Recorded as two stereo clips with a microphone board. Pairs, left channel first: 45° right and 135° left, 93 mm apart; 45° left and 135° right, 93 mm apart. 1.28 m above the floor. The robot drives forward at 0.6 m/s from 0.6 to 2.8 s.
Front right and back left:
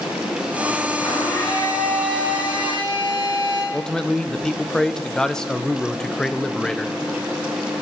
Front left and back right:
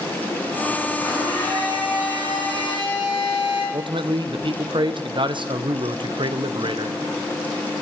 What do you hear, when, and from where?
1.0 s a blender: 15° right, 7.5 m; by 3.6 s 20° right, 6.5 m
3.7 s a man speaking: 130° right, 0.9 m